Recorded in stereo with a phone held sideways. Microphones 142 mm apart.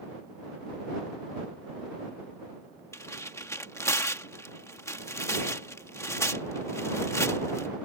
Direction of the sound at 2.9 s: 20° left (ahead or behind).